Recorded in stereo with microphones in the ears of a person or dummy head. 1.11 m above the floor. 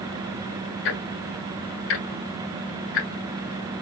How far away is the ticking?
About 1.4 m.